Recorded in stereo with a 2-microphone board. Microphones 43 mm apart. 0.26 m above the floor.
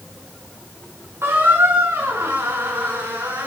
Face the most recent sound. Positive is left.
turn(degrees=-75)  # may be behind; listen again after turning